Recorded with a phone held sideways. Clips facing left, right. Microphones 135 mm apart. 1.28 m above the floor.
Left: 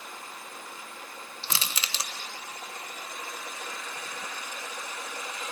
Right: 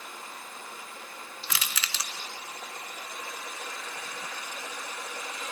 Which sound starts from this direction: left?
Crushing, at 1.4 s.